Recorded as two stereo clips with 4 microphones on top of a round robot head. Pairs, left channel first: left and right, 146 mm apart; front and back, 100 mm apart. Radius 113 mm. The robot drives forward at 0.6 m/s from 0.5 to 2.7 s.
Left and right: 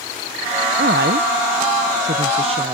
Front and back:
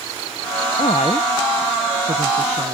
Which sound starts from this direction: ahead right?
A woman speaking, at 0.8 s.